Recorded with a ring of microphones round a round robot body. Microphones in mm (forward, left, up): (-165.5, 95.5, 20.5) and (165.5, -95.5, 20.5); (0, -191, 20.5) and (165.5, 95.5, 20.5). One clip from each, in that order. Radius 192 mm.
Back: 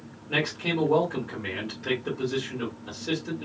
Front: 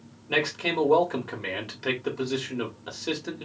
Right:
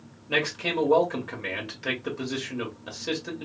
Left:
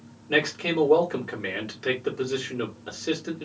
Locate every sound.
0.3 s a man speaking: 20° right, 1.5 m